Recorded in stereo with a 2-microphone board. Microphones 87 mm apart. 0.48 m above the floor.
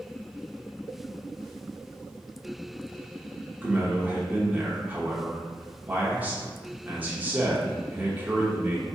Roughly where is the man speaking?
Centre.